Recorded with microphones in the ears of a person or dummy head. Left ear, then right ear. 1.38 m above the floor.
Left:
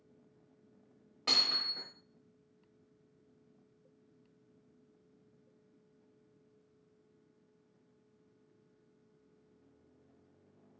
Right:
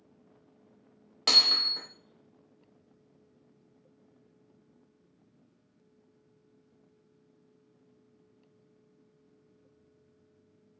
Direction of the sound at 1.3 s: 25° right (ahead or behind).